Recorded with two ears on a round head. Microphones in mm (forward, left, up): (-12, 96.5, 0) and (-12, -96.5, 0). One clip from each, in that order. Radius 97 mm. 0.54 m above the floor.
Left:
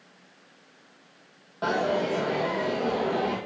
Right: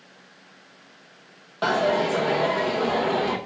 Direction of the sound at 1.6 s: 50° right (ahead or behind).